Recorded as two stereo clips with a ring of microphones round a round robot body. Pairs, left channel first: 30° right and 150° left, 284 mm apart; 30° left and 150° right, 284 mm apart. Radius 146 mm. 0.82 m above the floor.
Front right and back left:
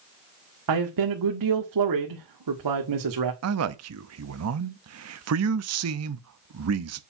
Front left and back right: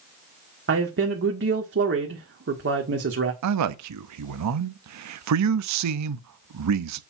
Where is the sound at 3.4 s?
175° right, 0.8 m.